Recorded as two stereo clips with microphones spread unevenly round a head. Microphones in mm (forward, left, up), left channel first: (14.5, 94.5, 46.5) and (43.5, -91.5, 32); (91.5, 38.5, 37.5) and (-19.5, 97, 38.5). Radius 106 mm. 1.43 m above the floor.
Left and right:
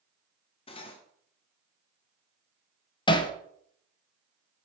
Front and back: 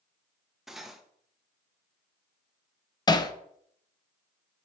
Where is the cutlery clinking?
65° left, 0.5 m.